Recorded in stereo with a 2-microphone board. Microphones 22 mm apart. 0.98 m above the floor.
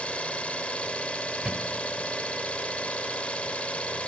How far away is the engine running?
About 1.6 m.